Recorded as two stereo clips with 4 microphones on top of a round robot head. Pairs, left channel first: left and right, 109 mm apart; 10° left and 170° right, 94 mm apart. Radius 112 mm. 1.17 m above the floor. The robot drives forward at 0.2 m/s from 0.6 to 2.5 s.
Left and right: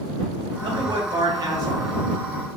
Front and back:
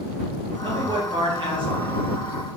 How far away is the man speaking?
About 0.9 m.